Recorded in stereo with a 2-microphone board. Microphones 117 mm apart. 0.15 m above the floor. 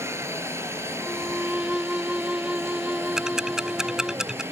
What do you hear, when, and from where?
0.0 s a helicopter: 20° right (ahead or behind)
1.0 s a violin: 5° right (ahead or behind)
3.2 s ticking: 5° right (ahead or behind)